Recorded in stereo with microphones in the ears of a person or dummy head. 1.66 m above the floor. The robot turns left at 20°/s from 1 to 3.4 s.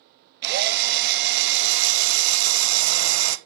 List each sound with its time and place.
0.4 s a drill: 60° right, 0.9 m; by 3.4 s 105° right, 0.9 m